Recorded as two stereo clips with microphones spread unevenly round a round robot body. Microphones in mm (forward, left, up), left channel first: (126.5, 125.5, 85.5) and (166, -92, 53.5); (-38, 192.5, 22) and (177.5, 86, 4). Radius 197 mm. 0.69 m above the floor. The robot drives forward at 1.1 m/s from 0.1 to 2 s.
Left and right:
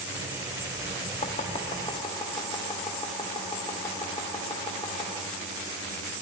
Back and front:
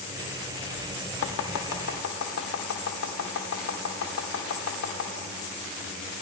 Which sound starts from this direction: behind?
Chopping, at 1.2 s.